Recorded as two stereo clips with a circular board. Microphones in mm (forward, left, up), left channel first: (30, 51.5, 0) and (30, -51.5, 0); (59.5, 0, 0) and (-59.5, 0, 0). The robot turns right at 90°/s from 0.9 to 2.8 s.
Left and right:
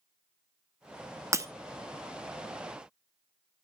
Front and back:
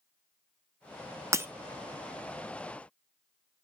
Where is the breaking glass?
130° right, 0.6 m; by 1.5 s 120° right, 0.6 m.